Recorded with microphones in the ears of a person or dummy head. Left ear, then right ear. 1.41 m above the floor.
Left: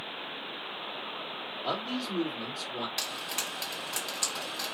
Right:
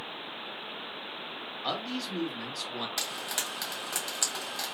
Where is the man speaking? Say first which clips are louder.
Even; 45° right (ahead or behind), 1.6 m.